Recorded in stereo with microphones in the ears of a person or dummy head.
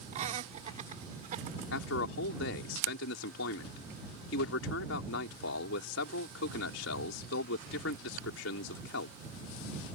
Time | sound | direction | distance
0.1 | laughter | 45° right (ahead or behind) | ?
1.7 | a man speaking | 75° left (ahead or behind) | ?